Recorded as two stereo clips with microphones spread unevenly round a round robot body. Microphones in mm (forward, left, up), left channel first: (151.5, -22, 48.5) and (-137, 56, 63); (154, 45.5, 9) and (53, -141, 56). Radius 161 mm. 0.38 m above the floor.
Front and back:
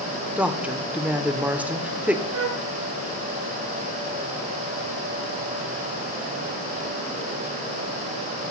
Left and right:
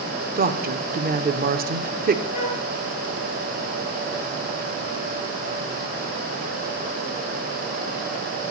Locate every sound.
0.4 s a woman speaking: 110° right, 0.8 m
2.3 s a flute: 135° left, 2 m